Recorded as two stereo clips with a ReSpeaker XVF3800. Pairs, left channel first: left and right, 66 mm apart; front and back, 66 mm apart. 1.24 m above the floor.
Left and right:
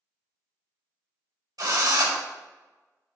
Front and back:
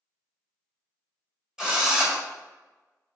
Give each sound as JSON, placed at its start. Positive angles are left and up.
{"t": 1.6, "sound": "a drill", "azimuth_deg": -100, "distance_m": 1.5}